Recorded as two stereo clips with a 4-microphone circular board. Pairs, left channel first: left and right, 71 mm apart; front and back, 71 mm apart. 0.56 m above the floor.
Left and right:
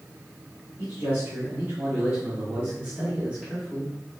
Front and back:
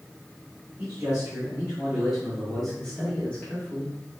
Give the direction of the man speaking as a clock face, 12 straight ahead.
4 o'clock.